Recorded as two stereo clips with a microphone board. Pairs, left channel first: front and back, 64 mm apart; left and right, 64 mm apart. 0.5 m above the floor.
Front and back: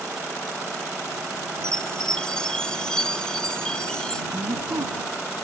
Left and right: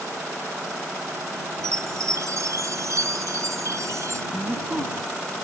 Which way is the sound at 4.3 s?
170° right.